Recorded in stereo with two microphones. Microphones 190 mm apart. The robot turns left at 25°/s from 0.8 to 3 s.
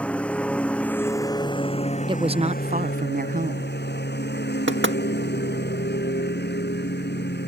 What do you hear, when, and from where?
0.0 s a lawn mower: 175° left; by 7.5 s 120° left
2.1 s a woman speaking: 25° right (ahead or behind); by 3.8 s 50° right (ahead or behind)
4.7 s knocking: 75° right (ahead or behind)